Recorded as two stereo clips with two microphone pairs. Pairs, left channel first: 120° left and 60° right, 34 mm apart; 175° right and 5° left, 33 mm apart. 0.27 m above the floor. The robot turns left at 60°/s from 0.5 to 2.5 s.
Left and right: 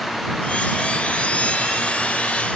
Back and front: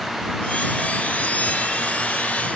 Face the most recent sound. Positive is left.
No sound to turn to.